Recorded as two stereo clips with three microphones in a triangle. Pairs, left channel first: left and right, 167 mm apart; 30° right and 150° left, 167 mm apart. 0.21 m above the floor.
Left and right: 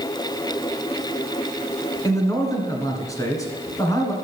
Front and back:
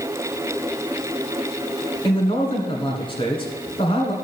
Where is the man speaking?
20° left, 1.9 m.